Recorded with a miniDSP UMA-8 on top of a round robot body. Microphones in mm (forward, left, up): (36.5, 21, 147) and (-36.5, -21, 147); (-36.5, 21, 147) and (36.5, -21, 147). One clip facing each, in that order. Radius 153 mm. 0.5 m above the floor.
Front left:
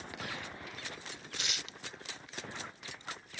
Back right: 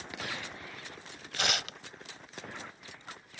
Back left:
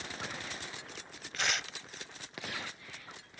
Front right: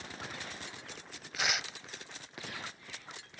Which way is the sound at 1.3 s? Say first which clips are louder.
Back right 11 dB, even; 115° right.